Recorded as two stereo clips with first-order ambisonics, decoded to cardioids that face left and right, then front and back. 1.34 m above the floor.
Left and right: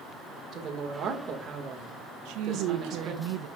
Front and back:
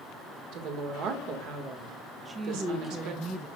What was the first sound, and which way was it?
A woman speaking, 150° right.